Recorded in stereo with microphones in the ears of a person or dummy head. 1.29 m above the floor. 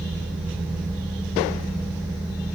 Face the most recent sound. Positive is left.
No sound to turn to.